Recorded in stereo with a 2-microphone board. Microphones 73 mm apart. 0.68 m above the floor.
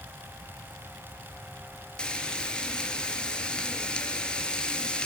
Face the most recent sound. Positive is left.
turn(degrees=10)  # may be behind; listen again after turning